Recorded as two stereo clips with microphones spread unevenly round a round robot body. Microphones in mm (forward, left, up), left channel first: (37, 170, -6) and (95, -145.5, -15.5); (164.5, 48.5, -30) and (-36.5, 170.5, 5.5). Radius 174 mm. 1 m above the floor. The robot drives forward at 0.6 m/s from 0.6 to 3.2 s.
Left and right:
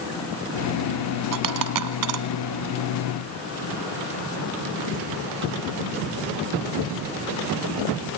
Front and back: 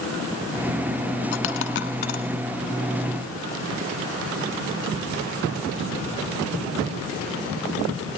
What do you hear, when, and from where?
1.3 s a dropped coin: 70° right, 1.5 m; by 2.2 s 95° right, 1.4 m